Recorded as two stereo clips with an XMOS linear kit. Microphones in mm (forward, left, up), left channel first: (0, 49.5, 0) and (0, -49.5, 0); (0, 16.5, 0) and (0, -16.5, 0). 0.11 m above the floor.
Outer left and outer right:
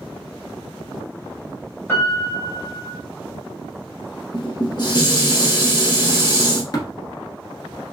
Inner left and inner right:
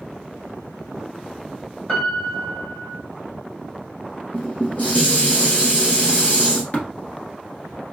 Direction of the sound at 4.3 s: 45° left (ahead or behind).